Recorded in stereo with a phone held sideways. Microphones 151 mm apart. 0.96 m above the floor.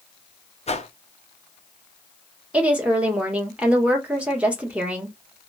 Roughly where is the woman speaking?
Centre.